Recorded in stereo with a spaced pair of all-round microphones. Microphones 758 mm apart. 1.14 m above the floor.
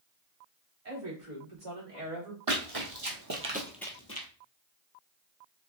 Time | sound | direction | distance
0.8 | a woman speaking | 85° right | 3 m
2.5 | running footsteps | 45° right (ahead or behind) | 2.0 m